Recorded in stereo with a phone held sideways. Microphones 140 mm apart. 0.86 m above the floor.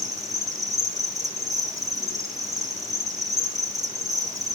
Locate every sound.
0.0 s an insect: 25° right (ahead or behind), 1.6 m